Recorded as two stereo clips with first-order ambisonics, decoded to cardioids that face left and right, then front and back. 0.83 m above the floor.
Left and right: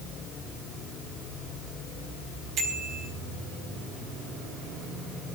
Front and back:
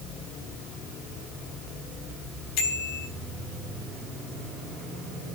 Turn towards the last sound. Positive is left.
turn(degrees=-30)